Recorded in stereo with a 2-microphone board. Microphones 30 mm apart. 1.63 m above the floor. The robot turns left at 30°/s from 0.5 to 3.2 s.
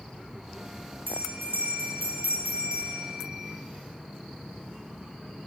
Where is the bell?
80° right, 9 m; by 3.5 s 140° right, 9 m.